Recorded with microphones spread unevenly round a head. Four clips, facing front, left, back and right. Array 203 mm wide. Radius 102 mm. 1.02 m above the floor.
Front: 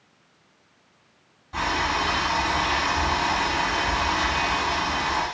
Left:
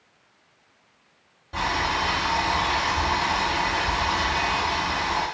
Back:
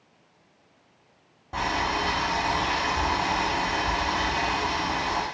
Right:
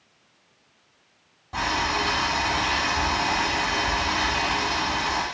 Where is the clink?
No clink in this recording.